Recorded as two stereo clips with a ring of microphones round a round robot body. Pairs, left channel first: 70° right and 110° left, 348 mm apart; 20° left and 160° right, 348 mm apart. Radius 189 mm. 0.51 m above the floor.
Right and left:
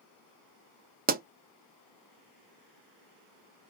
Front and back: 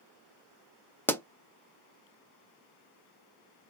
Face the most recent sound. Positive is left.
turn(degrees=100)